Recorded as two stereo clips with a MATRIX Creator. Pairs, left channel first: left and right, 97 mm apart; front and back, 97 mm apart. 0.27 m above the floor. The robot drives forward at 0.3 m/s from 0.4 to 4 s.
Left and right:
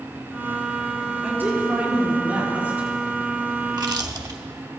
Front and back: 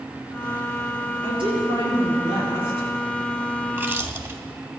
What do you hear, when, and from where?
1.2 s a woman speaking: 160° right, 6 m
3.7 s chewing: 115° right, 0.8 m; by 4.4 s 125° right, 0.8 m